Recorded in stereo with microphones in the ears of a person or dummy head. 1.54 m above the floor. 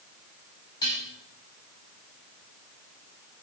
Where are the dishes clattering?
25° left (ahead or behind), 6 m.